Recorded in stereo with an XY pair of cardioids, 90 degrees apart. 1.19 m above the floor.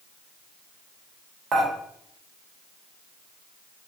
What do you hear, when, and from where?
1.5 s dishes clattering: 65° right, 1.1 m